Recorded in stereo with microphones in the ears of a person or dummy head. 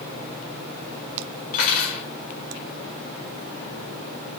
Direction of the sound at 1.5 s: 50° left (ahead or behind).